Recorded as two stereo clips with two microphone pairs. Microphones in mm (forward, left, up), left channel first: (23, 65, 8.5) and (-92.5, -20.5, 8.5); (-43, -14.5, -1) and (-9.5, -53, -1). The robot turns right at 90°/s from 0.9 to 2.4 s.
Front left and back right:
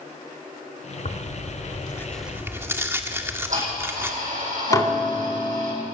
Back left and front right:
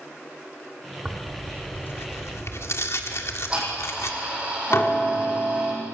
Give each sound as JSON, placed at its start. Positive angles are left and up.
{"t": 1.1, "sound": "tearing paper", "azimuth_deg": 25, "distance_m": 1.7}
{"t": 3.1, "sound": "ticking", "azimuth_deg": -115, "distance_m": 9.5}
{"t": 4.7, "sound": "dishes clattering", "azimuth_deg": 100, "distance_m": 2.5}